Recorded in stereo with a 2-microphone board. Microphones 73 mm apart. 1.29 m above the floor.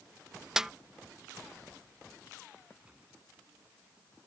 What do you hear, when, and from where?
0.6 s a snare drum: 10° right (ahead or behind)
2.8 s a gunshot: 15° right (ahead or behind)